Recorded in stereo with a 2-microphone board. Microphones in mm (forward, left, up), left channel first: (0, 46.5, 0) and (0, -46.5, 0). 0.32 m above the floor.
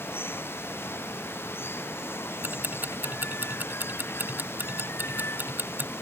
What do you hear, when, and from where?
0.0 s running water: 25° left (ahead or behind)
2.4 s ticking: 20° right (ahead or behind)